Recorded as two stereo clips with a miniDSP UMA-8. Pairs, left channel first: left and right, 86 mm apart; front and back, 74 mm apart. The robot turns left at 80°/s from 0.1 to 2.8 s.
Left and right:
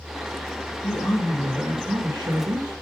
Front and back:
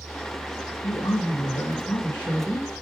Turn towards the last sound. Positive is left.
turn(degrees=-105)